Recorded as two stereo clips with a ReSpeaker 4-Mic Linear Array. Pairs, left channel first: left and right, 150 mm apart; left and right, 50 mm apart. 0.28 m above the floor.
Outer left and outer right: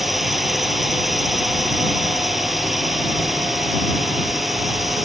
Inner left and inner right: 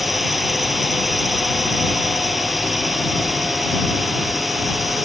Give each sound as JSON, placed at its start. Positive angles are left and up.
{"t": 0.0, "sound": "a drone", "side_deg": 0}